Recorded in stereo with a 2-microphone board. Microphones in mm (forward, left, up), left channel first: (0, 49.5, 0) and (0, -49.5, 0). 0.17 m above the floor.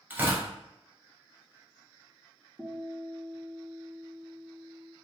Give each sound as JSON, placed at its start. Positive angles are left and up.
{"t": 0.1, "sound": "tearing paper", "side_deg": -20, "distance_m": 1.3}
{"t": 2.6, "sound": "a guitar", "side_deg": -5, "distance_m": 0.7}